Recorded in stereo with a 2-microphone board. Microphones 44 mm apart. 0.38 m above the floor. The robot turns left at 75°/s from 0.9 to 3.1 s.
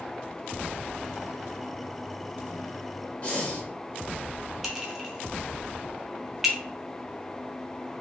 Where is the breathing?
30° left (ahead or behind), 0.8 m.